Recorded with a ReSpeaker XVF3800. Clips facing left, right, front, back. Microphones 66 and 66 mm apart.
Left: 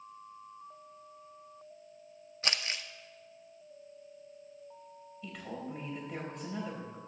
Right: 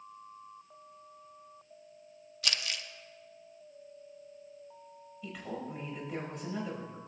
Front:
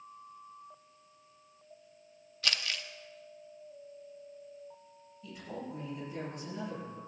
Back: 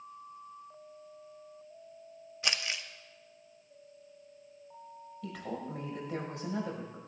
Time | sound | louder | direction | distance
2.4 | crumpling | left 1 dB, even | 120° left | 0.6 m
5.2 | a woman speaking | right 2 dB, back 3 dB | straight behind | 4.5 m